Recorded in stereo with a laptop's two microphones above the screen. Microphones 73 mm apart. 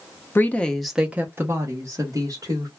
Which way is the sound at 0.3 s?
30° left (ahead or behind).